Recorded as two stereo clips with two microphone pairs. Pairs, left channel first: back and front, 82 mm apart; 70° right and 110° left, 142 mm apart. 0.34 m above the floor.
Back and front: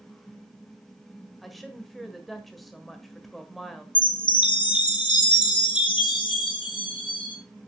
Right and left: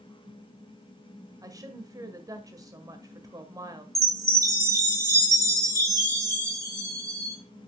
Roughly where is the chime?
Behind.